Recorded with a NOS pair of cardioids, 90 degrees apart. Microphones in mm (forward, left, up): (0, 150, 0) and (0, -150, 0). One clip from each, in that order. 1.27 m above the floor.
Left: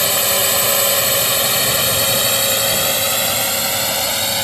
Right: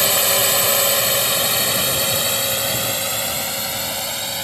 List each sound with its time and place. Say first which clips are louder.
0.0 s a drone: left 1 dB; straight ahead; by 4.5 s 45° left